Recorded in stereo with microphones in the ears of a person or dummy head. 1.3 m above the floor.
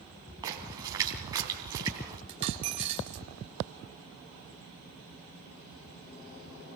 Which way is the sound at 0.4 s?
25° right (ahead or behind).